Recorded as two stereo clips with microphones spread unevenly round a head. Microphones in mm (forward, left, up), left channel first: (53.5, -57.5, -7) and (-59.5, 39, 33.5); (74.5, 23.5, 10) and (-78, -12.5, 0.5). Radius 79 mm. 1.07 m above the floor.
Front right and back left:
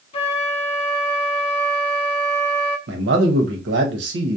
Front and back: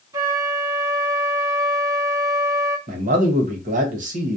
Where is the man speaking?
150° left, 0.9 m.